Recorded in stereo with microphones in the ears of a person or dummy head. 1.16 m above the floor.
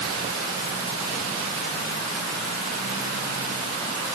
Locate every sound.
Only background noise.